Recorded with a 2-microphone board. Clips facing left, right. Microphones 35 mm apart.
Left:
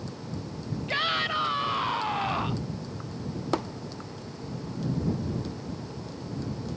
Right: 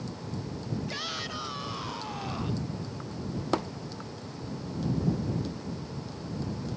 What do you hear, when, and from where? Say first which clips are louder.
0.9 s a shout: left 8 dB; 40° left (ahead or behind)